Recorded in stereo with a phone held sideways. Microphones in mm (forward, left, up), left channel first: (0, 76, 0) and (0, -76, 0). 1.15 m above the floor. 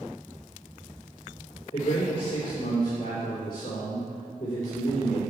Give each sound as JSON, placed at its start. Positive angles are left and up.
{"t": 1.7, "sound": "a man speaking", "side_deg": 45, "distance_m": 3.5}